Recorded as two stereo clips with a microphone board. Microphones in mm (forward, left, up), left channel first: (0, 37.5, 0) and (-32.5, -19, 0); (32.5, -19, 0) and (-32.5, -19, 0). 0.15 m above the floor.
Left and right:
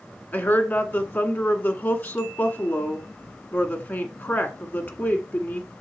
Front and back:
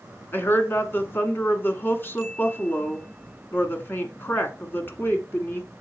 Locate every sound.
0.3 s a woman speaking: 25° left, 1.3 m